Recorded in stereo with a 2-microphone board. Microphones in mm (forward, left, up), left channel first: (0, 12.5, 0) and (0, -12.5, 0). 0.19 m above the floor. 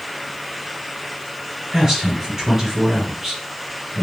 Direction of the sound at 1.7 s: 30° right (ahead or behind).